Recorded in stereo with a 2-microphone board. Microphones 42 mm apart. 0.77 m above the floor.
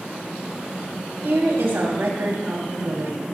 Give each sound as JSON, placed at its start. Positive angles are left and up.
{"t": 1.2, "sound": "a woman speaking", "side_deg": -80, "distance_m": 5.5}